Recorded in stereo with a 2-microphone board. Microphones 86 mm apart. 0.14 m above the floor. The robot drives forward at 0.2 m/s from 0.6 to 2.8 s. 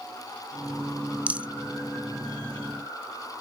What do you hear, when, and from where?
1.3 s a rattle: 15° right (ahead or behind), 0.5 m